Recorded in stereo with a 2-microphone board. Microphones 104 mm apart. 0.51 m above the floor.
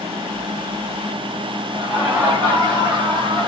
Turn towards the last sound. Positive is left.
turn(degrees=-50)  # may be behind; listen again after turning